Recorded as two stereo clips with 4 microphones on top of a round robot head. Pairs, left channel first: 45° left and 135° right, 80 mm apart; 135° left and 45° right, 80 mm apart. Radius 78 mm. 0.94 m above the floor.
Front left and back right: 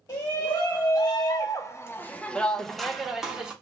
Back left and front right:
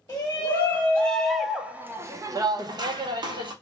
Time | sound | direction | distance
0.1 | a shout | 80° left | 1.1 m